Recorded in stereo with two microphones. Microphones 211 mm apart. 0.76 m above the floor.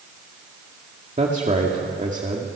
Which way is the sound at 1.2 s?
35° right (ahead or behind).